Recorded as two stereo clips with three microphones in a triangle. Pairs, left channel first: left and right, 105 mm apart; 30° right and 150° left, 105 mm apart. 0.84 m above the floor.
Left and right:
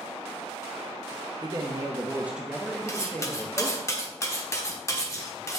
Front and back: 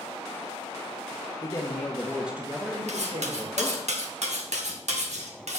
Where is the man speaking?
65° right, 1.0 m; by 3.9 s 150° left, 1.7 m.